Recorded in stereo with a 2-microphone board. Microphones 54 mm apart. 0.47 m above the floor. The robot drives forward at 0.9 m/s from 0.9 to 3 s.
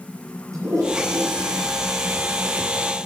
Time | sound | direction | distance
0.5 | a toilet flushing | 80° right | 6.5 m